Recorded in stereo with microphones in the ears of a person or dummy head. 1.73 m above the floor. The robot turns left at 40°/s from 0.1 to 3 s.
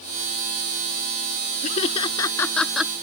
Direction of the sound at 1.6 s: 45° left (ahead or behind).